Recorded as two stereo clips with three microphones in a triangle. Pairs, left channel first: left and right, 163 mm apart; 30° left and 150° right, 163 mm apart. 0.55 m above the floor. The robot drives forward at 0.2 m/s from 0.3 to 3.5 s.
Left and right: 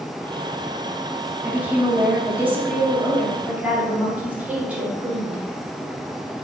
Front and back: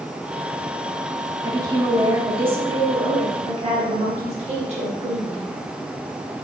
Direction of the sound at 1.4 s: 145° right.